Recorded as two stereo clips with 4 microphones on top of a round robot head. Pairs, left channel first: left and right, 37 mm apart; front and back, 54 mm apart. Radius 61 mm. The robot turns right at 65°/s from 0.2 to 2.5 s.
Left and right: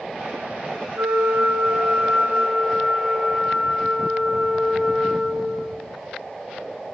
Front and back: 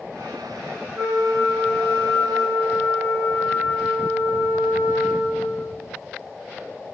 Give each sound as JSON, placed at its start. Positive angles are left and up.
{"t": 0.9, "sound": "a flute", "azimuth_deg": -100, "distance_m": 0.7}